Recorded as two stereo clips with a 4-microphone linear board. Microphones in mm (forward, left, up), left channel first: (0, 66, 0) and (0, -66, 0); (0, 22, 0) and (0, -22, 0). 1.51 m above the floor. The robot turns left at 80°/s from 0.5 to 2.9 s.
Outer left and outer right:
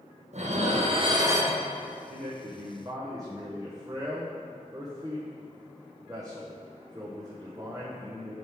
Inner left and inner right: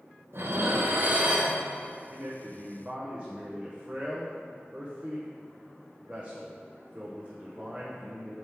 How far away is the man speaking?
About 0.8 m.